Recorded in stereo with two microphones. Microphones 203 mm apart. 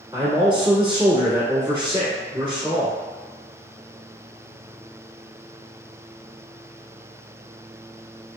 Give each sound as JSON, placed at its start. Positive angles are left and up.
{"t": 0.1, "sound": "a man speaking", "side_deg": -20, "distance_m": 1.3}